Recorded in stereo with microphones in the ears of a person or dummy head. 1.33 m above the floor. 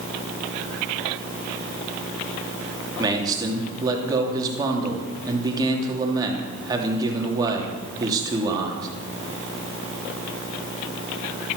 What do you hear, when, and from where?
3.0 s a man speaking: 20° right (ahead or behind), 3 m